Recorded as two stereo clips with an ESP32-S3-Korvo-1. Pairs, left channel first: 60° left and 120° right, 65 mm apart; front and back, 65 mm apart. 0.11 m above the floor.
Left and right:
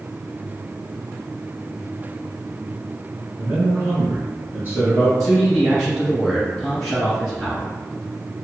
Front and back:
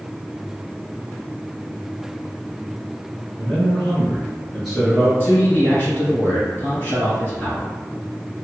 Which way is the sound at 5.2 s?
35° right.